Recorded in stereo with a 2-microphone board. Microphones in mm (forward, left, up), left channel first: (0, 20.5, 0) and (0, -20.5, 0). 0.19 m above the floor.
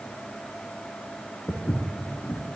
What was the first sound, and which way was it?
Footsteps, 80° left.